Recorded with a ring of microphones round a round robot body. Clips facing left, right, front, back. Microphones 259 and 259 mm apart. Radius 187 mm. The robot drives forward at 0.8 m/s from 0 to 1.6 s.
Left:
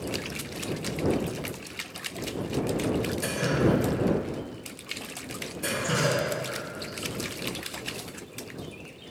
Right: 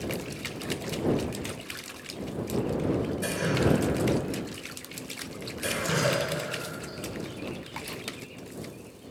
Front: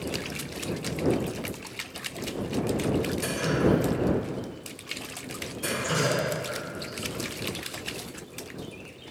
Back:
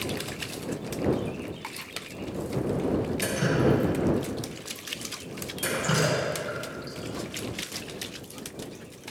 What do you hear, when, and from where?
3.2 s dripping: 175° right, 2.5 m